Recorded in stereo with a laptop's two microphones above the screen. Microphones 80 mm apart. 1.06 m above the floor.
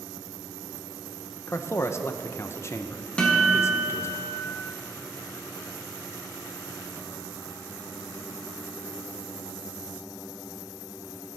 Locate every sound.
1.5 s a man speaking: 35° left (ahead or behind), 0.5 m
3.2 s a guitar: 15° left (ahead or behind), 1.6 m